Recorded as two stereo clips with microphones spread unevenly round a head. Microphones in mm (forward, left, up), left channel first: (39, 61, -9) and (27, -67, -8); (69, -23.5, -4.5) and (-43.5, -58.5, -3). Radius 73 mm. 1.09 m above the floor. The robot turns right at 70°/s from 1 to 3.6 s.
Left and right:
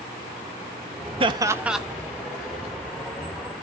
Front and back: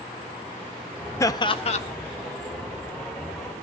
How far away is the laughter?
About 1.5 m.